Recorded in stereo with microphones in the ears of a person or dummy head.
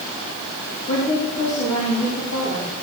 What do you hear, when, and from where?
0.9 s a woman speaking: 45° left (ahead or behind), 4 m